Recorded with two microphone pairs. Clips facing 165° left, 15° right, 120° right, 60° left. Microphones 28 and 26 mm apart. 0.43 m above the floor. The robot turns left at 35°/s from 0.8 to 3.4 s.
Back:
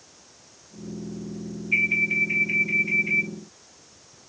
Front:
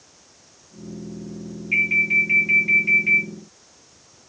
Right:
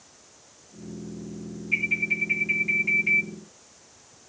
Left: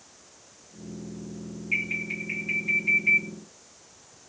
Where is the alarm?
15° left, 2.5 m; by 3.3 s 40° right, 2.5 m.